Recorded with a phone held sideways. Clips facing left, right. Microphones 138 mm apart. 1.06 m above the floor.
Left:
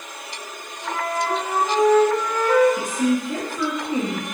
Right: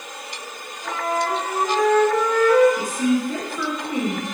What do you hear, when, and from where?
0.8 s a flute: 30° left (ahead or behind), 1.5 m
2.8 s a woman speaking: 20° left (ahead or behind), 0.8 m